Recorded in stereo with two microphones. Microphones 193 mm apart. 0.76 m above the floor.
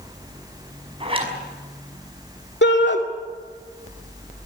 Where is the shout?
65° left (ahead or behind), 2 m.